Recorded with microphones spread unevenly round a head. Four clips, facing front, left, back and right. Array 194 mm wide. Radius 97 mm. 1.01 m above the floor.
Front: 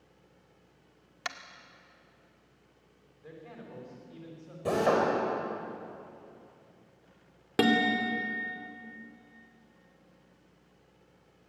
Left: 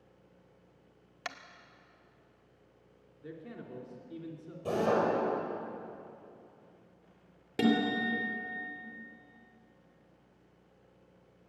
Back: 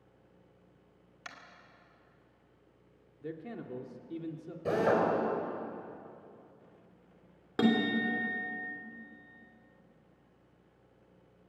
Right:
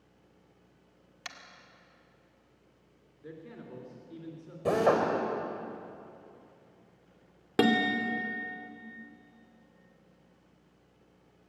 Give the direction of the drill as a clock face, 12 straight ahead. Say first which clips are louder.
Right 3 dB, front 2 dB; 3 o'clock.